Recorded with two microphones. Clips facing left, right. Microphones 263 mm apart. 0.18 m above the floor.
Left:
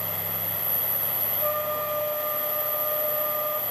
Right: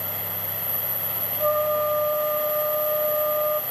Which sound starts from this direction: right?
A trumpet, at 1.4 s.